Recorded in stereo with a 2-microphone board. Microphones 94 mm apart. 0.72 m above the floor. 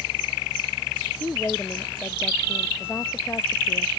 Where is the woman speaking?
20° left (ahead or behind); by 3.9 s 30° left (ahead or behind).